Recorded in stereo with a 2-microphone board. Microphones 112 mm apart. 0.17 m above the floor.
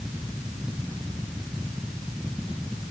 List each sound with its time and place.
Only background noise.